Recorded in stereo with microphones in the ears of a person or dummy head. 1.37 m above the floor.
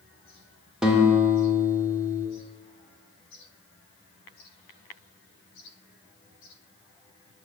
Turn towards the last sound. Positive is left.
turn(degrees=-5)  # may be behind; listen again after turning